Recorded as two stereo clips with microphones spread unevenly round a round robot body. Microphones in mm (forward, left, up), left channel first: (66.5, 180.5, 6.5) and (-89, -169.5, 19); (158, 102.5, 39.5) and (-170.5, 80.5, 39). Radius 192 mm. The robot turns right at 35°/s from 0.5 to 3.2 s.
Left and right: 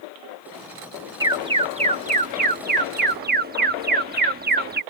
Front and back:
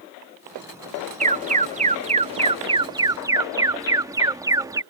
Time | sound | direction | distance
1.2 | an alarm | 175° left | ?